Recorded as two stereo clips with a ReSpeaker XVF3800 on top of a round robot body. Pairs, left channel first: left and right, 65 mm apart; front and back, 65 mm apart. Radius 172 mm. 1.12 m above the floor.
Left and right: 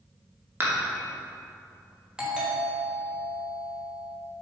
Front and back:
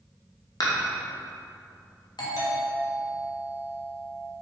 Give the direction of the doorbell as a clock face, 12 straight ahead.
12 o'clock.